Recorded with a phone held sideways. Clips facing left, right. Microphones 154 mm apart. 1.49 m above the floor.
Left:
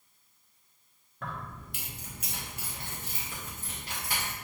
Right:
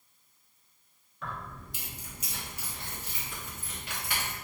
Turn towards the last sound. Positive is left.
turn(degrees=35)  # may be behind; listen again after turning